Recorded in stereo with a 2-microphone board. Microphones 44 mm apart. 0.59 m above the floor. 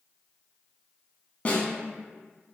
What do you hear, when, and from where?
1.4 s a snare drum: 35° left (ahead or behind), 0.8 m